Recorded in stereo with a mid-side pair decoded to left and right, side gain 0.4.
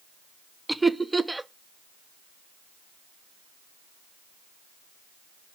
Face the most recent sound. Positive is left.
turn(degrees=-15)